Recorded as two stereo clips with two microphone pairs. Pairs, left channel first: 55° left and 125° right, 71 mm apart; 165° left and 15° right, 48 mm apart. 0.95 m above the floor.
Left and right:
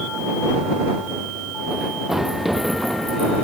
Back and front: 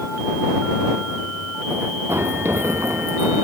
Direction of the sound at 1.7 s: 40° right.